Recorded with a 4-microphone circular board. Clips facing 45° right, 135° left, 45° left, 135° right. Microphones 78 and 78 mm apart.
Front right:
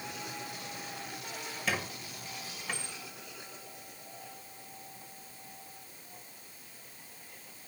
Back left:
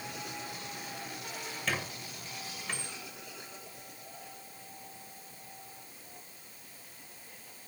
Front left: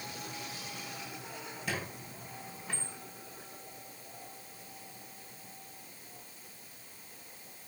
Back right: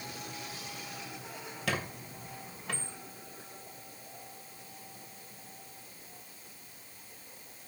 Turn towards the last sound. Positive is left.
turn(degrees=-130)